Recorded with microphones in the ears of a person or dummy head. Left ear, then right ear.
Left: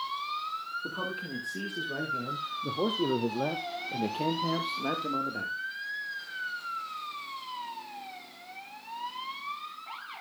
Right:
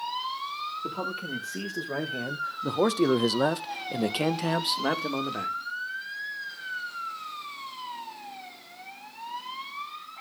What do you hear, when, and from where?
0.8 s a man speaking: 15° right (ahead or behind), 1.8 m; by 5.6 s 40° right (ahead or behind), 1.9 m